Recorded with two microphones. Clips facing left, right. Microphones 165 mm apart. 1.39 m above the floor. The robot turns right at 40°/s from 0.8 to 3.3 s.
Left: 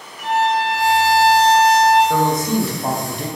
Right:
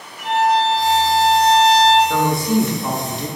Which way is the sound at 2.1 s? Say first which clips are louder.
Even; 10° left.